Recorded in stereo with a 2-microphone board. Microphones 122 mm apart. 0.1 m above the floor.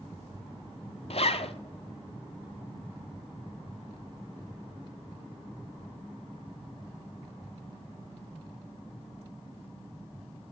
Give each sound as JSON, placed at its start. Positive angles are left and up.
{"t": 1.1, "sound": "a zipper", "side_deg": 60, "distance_m": 0.5}